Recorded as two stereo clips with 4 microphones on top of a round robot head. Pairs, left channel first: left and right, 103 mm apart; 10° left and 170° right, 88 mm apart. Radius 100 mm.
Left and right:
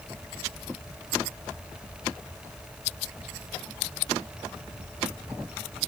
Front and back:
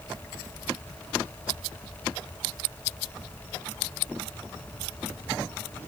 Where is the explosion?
No explosion in this recording.